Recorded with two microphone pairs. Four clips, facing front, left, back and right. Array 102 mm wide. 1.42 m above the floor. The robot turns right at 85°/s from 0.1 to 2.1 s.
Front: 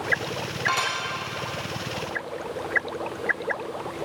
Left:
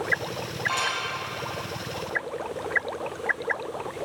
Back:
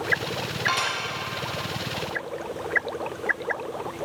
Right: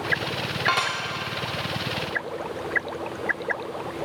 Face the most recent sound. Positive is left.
turn(degrees=35)